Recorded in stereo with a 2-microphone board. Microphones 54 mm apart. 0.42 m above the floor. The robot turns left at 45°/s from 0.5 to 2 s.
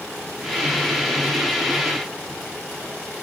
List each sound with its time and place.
Only background noise.